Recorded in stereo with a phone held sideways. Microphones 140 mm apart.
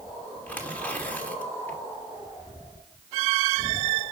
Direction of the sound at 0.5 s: 10° left (ahead or behind).